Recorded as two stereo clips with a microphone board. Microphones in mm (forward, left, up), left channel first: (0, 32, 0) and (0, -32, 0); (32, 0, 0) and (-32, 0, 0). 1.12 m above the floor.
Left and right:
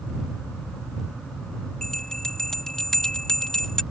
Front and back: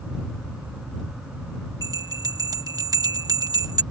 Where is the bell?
170° left.